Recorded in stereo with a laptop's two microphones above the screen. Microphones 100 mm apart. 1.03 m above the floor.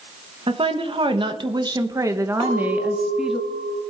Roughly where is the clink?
Right.